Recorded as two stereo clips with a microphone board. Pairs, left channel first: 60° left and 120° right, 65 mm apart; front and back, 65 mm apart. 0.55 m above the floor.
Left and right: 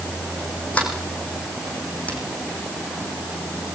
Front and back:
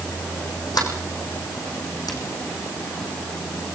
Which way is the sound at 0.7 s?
10° right.